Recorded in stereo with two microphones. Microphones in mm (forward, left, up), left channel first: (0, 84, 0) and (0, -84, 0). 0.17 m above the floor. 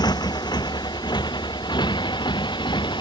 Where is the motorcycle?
25° left (ahead or behind).